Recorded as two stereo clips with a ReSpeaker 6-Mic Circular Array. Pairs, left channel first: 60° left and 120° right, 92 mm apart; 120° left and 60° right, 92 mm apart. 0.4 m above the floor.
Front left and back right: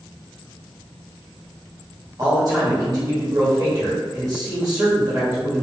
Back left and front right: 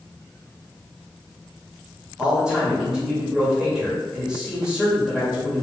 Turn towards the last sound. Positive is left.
turn(degrees=-135)